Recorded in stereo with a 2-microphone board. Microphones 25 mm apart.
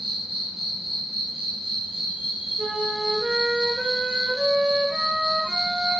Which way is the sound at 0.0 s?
25° right (ahead or behind).